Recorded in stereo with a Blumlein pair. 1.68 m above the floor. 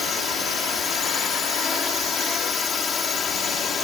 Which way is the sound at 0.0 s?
20° left.